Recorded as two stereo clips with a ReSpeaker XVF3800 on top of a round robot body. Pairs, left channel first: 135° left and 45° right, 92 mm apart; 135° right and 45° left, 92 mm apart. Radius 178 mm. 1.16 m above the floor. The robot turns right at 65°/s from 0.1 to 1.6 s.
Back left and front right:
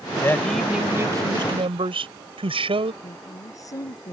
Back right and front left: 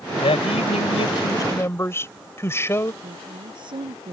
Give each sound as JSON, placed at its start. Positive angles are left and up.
{"t": 0.2, "sound": "a man speaking", "azimuth_deg": -160}
{"t": 3.0, "sound": "a woman speaking", "azimuth_deg": 80}